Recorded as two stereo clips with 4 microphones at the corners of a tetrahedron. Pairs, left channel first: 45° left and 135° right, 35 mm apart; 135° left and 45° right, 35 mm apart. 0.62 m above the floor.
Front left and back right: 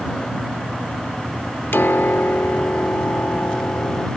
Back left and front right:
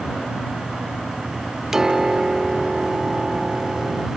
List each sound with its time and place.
1.7 s a piano: 35° left